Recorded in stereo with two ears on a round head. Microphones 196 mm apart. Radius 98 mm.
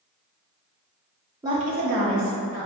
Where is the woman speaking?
15° right (ahead or behind), 0.6 m; by 2.7 s 80° right, 1.3 m.